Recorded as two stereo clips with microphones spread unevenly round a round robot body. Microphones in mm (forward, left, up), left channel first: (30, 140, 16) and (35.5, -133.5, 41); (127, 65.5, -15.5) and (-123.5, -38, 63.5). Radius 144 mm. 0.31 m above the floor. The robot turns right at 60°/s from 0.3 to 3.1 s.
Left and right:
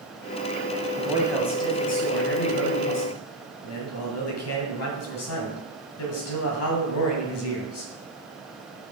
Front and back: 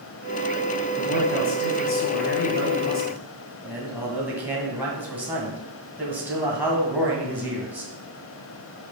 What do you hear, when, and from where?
1.0 s a man speaking: 15° right, 1.9 m; by 7.9 s 110° left, 1.9 m